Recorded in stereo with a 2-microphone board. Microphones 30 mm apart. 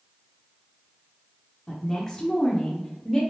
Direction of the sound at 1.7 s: 15° left (ahead or behind).